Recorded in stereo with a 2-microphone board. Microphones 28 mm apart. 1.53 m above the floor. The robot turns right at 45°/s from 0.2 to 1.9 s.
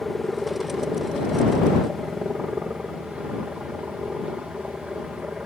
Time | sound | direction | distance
0.0 | a helicopter | 175° left | ?